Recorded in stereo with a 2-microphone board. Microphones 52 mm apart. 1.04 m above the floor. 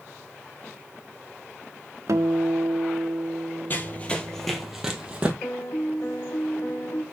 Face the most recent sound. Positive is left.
turn(degrees=70)  # may be behind; listen again after turning